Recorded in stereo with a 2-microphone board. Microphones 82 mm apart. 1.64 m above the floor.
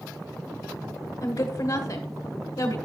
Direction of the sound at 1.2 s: 50° left (ahead or behind).